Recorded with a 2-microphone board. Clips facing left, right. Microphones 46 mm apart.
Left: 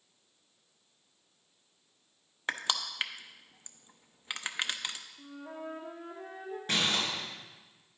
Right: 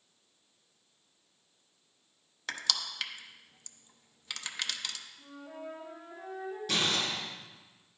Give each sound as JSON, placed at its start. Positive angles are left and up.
{"t": 2.5, "sound": "crushing", "side_deg": 25, "distance_m": 0.5}
{"t": 5.2, "sound": "a flute", "side_deg": 45, "distance_m": 2.5}
{"t": 6.7, "sound": "crumpling", "side_deg": 35, "distance_m": 3.5}